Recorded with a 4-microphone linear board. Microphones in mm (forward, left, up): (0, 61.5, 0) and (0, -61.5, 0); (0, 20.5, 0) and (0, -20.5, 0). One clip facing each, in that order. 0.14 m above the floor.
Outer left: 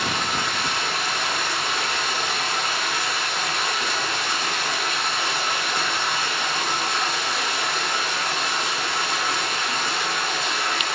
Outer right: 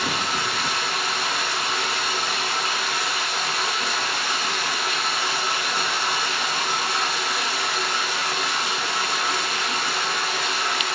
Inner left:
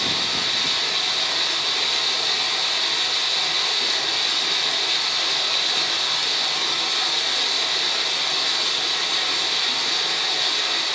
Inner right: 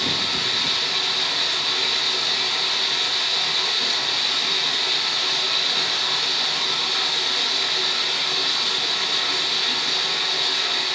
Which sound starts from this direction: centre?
Running water, at 0.0 s.